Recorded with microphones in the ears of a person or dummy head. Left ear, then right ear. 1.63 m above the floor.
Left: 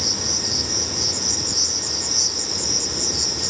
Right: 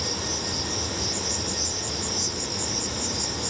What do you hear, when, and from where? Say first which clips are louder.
0.0 s an insect: left 6 dB; 50° left (ahead or behind), 0.8 m